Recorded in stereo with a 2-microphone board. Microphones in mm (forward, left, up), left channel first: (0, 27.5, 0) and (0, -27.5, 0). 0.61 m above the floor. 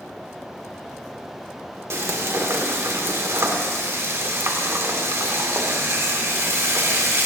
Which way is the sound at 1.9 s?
55° right (ahead or behind).